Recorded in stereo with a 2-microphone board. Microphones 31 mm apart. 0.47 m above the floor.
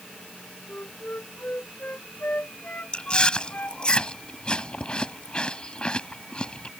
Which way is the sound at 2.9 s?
30° left (ahead or behind).